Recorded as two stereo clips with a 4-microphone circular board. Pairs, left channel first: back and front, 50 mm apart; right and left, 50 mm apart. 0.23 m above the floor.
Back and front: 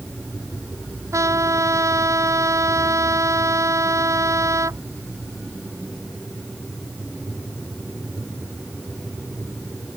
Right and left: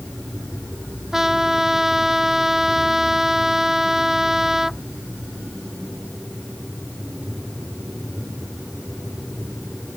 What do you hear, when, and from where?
1.1 s a trumpet: 5° left